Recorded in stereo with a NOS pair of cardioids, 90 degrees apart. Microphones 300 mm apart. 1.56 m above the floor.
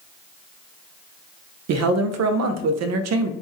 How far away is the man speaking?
About 0.5 m.